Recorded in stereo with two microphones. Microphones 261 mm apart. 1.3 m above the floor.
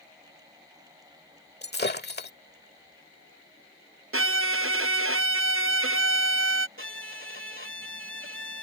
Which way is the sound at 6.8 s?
50° right (ahead or behind).